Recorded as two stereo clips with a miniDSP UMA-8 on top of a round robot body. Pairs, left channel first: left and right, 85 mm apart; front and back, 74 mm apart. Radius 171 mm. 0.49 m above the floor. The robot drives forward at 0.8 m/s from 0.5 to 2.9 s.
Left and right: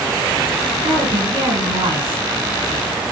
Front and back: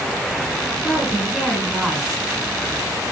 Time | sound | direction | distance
0.8 | a woman speaking | 80° right | 5.5 m